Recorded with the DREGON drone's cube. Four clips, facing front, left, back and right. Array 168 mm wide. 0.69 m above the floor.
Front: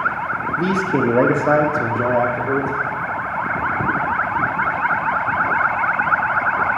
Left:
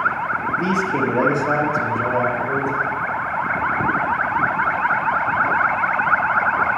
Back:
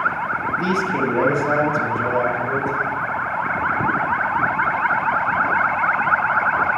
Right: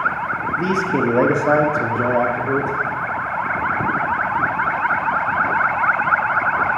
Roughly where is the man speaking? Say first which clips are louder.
Right 2 dB, front 4 dB; ahead.